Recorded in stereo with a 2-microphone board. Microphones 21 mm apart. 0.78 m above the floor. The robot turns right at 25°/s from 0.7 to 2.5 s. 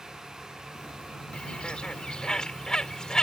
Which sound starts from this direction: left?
A bird, at 1.3 s.